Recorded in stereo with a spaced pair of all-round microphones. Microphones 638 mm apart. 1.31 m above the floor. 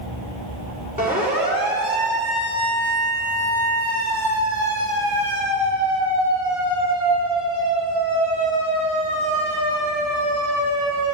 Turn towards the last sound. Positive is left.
turn(degrees=-40)  # may be behind; listen again after turning